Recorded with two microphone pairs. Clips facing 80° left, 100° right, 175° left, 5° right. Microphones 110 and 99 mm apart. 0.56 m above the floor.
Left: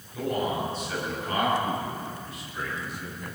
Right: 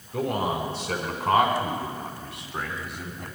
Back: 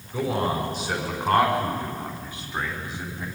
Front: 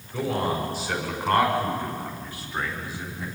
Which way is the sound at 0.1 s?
115° right.